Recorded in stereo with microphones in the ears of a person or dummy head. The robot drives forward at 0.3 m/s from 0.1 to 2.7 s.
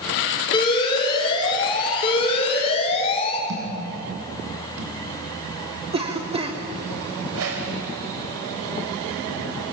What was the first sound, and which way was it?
An alarm, 30° left (ahead or behind).